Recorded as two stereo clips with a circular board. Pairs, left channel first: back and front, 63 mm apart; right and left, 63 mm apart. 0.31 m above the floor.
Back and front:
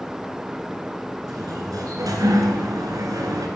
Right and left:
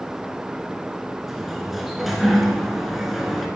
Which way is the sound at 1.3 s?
Straight ahead.